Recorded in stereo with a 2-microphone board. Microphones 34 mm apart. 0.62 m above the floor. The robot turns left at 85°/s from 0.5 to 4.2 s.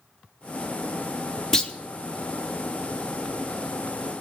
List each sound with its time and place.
1.5 s a clunk: 15° left (ahead or behind), 0.8 m; by 1.7 s 30° left (ahead or behind), 0.8 m